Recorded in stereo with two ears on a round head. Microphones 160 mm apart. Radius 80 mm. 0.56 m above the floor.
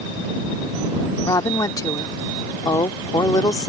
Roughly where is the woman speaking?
Centre.